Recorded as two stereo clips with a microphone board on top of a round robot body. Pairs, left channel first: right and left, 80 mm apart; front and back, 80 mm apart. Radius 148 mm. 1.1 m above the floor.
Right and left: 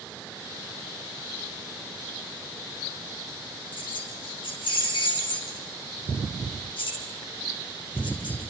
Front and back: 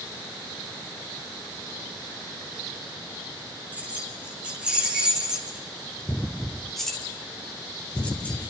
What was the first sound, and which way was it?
Keys jangling, 110° right.